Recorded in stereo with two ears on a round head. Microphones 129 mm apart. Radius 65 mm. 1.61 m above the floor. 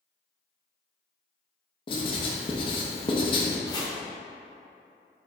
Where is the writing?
35° left (ahead or behind), 0.7 m.